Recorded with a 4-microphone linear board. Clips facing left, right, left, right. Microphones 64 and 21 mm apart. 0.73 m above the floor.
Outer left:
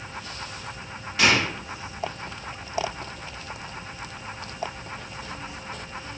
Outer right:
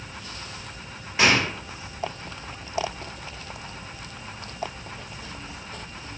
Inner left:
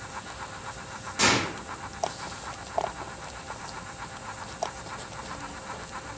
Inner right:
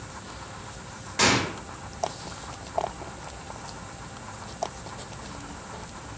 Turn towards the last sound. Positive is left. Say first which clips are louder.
# outer right 1 dB, inner right 1 dB
turn(degrees=-25)  # may be behind; listen again after turning